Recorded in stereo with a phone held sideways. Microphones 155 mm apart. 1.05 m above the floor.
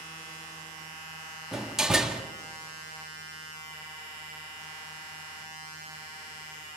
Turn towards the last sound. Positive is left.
turn(degrees=-5)  # may be behind; listen again after turning